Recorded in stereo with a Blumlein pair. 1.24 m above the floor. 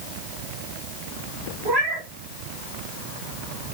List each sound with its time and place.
1.6 s a cat meowing: 40° right, 1.8 m